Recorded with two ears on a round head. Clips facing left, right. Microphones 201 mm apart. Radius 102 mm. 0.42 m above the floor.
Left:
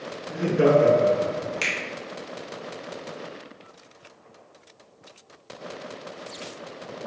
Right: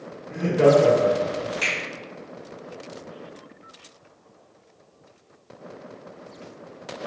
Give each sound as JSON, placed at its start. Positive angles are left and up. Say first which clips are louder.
{"t": 0.3, "sound": "laughter", "louder": "right 2 dB", "side_deg": 10, "distance_m": 1.0}
{"t": 1.6, "sound": "a finger snap", "louder": "right 1 dB", "side_deg": 35, "distance_m": 0.8}